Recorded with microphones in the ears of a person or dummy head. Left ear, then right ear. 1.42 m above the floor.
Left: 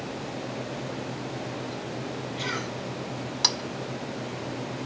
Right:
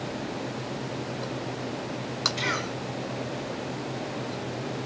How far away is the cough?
About 7.5 m.